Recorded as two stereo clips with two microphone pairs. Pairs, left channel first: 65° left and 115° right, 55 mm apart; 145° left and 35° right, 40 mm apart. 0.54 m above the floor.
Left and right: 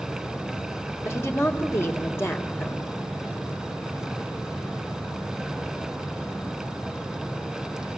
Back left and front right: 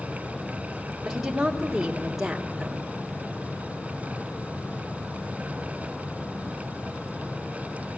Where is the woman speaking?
50° left, 1.5 m.